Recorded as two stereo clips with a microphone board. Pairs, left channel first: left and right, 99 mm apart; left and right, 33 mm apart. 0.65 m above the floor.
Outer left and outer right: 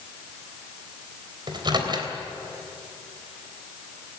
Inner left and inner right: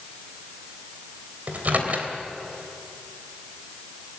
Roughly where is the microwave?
Right.